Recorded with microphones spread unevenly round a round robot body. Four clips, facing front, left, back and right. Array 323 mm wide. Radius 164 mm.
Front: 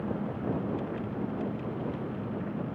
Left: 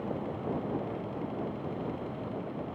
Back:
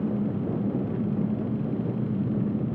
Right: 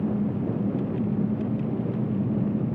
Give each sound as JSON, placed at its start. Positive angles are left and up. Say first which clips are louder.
{"t": 0.0, "sound": "an engine running", "louder": "right 8 dB, back 5 dB", "azimuth_deg": -130}